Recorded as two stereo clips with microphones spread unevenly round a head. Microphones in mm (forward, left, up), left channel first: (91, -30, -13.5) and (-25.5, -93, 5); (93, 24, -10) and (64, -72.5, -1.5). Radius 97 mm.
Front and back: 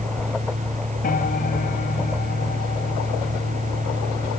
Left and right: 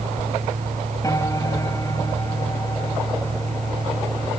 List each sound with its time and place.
0.0 s a fan: 125° right
1.0 s a piano: 15° left